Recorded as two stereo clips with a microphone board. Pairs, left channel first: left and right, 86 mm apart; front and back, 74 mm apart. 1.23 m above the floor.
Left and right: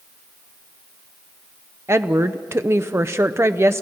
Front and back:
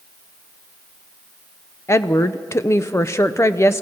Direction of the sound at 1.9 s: 40° right.